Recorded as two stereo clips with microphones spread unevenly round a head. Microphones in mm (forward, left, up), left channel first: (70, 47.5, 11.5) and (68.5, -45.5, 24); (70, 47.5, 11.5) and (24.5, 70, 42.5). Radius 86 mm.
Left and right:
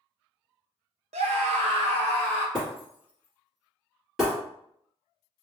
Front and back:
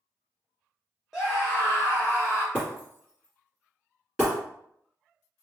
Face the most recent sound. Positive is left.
turn(degrees=-170)